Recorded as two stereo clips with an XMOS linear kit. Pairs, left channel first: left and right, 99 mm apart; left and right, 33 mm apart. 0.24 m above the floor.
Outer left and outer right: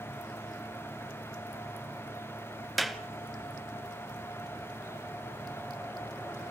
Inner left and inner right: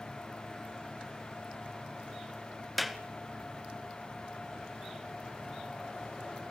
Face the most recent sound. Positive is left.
turn(degrees=0)  # may be behind; listen again after turning